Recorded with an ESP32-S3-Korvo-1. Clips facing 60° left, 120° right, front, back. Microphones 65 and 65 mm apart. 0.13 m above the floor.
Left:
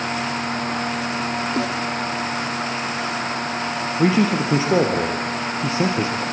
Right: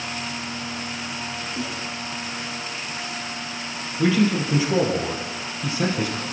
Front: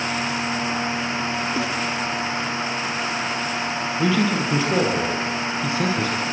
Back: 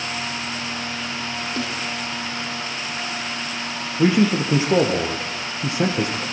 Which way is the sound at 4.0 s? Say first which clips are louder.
Left 2 dB, back 4 dB; 115° left.